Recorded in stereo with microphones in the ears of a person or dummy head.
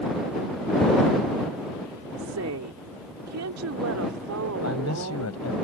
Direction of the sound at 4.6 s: 90° left.